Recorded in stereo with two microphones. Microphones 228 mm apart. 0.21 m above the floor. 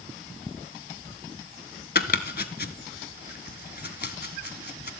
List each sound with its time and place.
1.9 s chopping: 50° left (ahead or behind), 0.7 m